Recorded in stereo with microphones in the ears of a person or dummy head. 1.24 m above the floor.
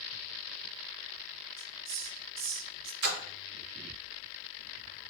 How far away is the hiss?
About 1.1 m.